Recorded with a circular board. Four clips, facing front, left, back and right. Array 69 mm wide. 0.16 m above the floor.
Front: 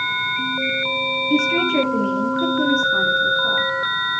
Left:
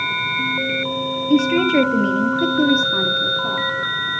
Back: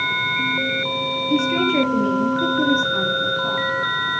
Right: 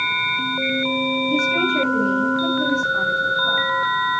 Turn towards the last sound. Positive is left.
turn(degrees=105)